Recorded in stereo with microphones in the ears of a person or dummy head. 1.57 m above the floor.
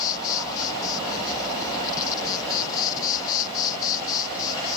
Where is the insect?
20° left (ahead or behind).